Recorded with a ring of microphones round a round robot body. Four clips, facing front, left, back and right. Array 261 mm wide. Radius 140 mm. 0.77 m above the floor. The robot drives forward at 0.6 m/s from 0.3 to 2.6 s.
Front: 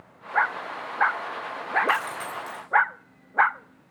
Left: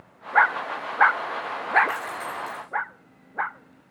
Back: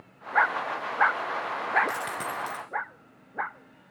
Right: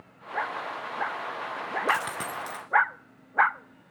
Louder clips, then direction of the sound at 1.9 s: Right 2 dB, front 5 dB; 115° right.